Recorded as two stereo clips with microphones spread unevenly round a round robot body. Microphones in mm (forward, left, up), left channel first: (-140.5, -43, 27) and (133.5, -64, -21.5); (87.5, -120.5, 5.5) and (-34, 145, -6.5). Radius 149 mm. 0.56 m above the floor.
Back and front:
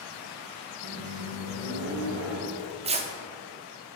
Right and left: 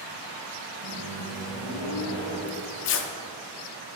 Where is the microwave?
55° right, 2 m.